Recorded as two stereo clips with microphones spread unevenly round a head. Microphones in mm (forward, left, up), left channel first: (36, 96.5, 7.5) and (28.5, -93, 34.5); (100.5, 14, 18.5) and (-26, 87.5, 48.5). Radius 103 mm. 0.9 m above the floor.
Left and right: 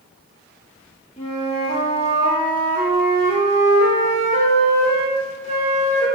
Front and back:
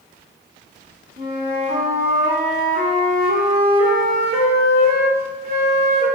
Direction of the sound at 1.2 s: 150° left.